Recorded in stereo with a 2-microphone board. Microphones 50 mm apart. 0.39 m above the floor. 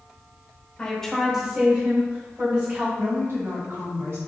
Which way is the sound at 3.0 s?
60° right (ahead or behind).